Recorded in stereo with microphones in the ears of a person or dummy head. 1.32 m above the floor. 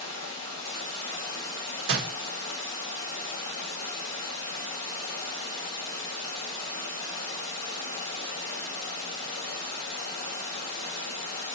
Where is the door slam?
70° right (ahead or behind), 1.4 m.